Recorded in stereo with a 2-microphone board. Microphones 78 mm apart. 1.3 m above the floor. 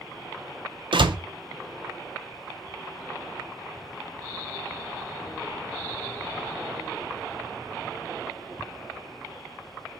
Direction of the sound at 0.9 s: 80° right.